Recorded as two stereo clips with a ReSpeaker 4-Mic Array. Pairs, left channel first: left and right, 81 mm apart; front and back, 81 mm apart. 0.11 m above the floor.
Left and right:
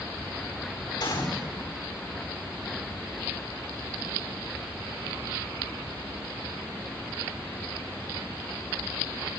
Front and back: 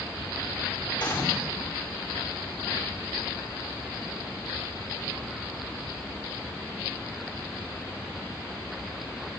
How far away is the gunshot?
About 9 m.